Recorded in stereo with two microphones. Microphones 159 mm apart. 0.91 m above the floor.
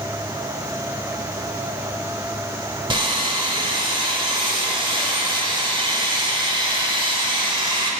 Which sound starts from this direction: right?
Sawing, at 2.9 s.